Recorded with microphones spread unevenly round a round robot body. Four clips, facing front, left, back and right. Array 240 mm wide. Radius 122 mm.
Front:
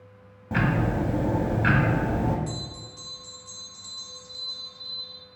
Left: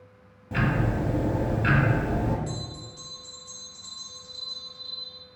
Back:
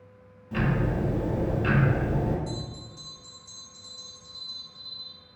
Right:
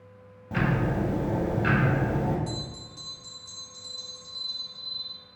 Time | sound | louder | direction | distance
0.5 | ticking | even, front 2 dB | 5° right | 0.8 m
2.5 | a bell | even, even | 25° right | 1.5 m